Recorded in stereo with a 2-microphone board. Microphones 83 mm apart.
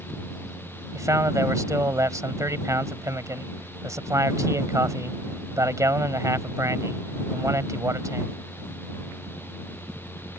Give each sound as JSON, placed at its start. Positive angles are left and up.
{"t": 0.9, "sound": "a man speaking", "side_deg": -40}